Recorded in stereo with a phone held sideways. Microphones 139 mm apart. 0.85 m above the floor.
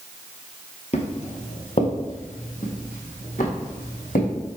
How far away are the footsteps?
About 1.2 m.